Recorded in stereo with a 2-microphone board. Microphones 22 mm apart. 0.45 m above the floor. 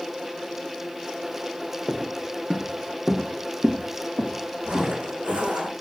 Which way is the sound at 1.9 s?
Centre (ahead or behind).